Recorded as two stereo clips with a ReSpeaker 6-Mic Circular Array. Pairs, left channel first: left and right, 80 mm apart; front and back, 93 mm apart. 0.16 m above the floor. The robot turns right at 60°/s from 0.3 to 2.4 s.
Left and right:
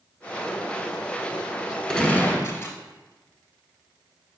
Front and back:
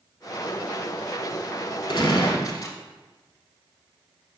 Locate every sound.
1.9 s a gunshot: 10° left, 0.8 m; by 2.8 s 40° left, 0.8 m